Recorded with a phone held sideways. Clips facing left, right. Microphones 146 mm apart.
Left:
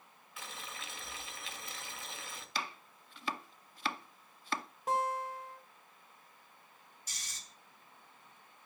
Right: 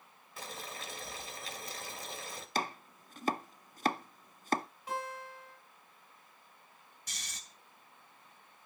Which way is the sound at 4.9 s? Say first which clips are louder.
Left 7 dB; 45° left (ahead or behind).